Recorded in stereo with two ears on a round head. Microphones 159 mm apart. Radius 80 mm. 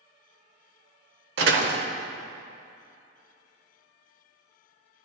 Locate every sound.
1.4 s a door slam: 65° right (ahead or behind), 0.9 m